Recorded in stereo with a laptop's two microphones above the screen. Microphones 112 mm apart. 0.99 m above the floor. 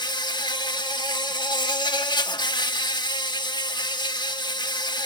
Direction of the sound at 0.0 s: 40° left (ahead or behind).